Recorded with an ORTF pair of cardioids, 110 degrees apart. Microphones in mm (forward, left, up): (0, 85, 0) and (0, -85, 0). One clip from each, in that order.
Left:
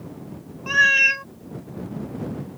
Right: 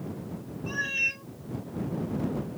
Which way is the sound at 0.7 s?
60° left.